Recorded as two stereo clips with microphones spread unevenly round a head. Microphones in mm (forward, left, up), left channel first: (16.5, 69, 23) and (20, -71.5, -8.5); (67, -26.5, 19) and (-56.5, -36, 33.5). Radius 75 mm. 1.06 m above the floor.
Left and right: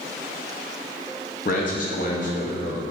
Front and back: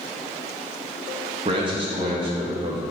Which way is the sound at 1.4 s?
130° left.